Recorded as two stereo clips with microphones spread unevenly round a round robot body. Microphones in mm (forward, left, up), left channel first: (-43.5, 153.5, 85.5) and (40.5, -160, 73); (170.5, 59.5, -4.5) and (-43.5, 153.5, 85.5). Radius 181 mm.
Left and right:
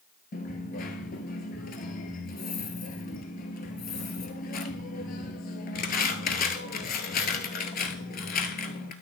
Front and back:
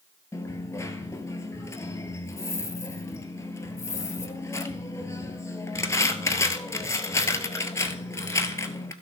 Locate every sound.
0.3 s a dropped coin: 95° left, 0.8 m